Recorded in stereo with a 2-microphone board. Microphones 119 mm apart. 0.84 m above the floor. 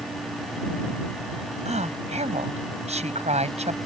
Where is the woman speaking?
70° right (ahead or behind).